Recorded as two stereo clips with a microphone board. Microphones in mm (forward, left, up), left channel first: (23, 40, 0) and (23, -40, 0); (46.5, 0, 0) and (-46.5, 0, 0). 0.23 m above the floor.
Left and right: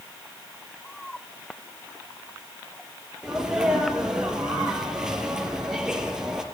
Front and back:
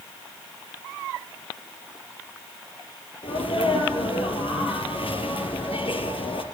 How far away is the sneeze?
About 4.5 m.